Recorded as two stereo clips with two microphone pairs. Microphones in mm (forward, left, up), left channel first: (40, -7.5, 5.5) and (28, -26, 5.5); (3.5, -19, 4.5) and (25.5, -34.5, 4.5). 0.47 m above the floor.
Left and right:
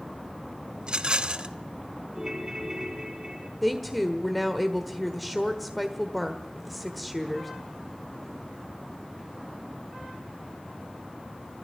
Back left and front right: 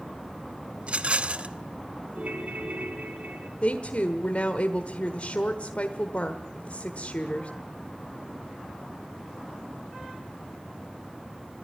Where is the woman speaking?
145° left, 1.3 m.